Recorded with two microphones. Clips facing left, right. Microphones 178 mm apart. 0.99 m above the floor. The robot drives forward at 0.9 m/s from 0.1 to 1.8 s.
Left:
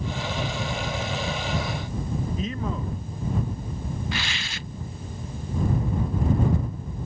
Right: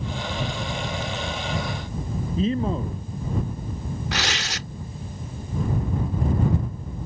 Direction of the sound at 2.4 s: 30° right (ahead or behind).